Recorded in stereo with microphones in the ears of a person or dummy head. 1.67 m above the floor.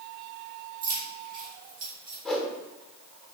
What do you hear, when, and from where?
0.8 s keys jangling: 40° right (ahead or behind), 1.4 m; by 2.1 s 55° right (ahead or behind), 1.9 m
2.2 s a whoosh: 5° left (ahead or behind), 0.9 m